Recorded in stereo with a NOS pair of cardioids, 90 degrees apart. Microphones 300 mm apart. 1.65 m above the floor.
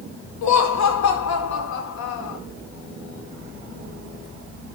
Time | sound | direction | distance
0.4 | laughter | 65° left | 4.5 m